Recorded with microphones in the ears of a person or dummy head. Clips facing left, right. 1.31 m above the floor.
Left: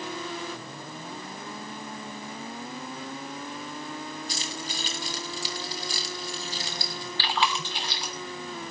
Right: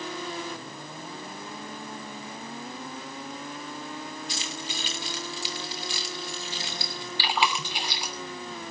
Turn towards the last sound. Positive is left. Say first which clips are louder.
# right 1 dB
turn(degrees=-10)  # may be behind; listen again after turning